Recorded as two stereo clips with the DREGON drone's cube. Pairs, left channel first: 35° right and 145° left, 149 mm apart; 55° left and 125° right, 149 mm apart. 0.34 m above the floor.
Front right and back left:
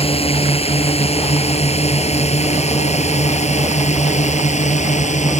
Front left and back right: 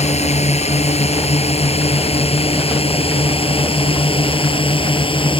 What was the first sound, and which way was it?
A drone, 15° left.